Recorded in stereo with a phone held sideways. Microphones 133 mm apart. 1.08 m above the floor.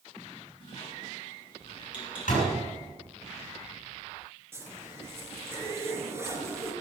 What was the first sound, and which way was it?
A squeak, 40° left (ahead or behind).